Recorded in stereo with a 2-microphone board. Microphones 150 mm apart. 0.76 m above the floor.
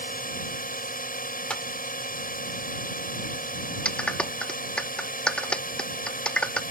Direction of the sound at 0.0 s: 70° left (ahead or behind).